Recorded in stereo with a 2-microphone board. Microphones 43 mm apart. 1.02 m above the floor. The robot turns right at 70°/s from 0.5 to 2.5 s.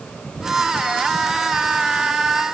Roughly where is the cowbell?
No cowbell in this recording.